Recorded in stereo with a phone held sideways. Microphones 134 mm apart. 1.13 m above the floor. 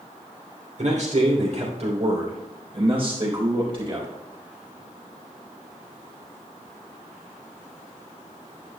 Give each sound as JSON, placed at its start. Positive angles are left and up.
{"t": 0.8, "sound": "a man speaking", "side_deg": -55, "distance_m": 3.0}